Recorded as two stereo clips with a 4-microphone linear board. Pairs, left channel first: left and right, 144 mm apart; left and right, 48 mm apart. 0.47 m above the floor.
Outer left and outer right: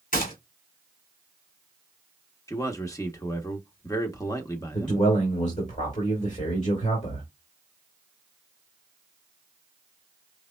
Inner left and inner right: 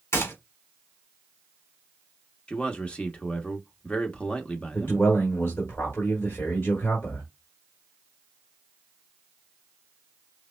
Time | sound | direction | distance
0.1 | a gunshot | 80° left | 2 m
2.5 | a man speaking | 25° left (ahead or behind) | 0.8 m
4.7 | a man speaking | 60° left (ahead or behind) | 2 m